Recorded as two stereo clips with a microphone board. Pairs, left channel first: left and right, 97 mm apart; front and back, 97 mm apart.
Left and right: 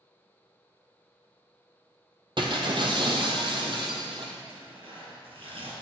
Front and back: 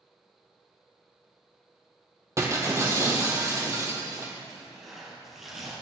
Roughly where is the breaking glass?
Behind right.